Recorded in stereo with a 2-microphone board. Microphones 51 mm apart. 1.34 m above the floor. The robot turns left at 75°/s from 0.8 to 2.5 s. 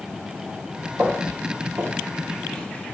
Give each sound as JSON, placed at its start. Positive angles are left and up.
{"t": 1.0, "sound": "footsteps", "side_deg": -20, "distance_m": 2.5}